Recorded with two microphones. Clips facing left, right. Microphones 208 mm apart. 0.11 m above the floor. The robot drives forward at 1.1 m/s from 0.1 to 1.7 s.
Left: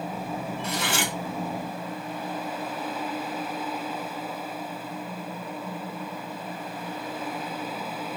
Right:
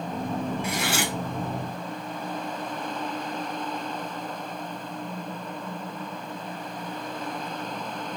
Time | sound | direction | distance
0.6 | cutlery clinking | 10° right (ahead or behind) | 1.2 m